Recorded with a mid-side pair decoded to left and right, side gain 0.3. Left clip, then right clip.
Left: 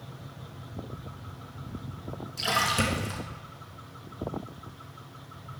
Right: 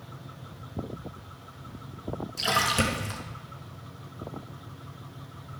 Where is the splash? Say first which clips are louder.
Right 1 dB; 30° right, 2 m.